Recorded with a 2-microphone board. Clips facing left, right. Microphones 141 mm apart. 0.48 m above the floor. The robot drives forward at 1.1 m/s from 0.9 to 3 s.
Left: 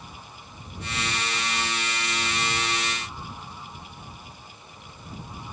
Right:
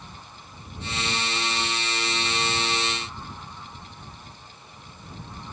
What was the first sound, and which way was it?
Only background noise.